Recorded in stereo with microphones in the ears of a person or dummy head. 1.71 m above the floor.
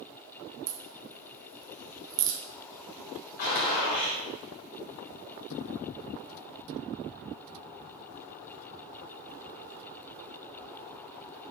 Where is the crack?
70° right (ahead or behind), 0.6 m.